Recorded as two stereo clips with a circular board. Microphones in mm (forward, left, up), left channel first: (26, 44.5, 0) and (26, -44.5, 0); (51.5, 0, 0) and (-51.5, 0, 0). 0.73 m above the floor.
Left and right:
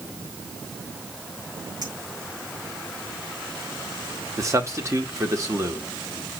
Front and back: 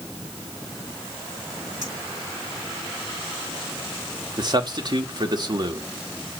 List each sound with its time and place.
1.8 s a clink: 130° right, 6 m
4.4 s a man speaking: 140° right, 1.8 m